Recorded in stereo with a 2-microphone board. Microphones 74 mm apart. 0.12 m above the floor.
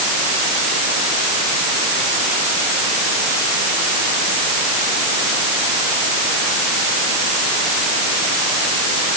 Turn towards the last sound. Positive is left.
No sound to turn to.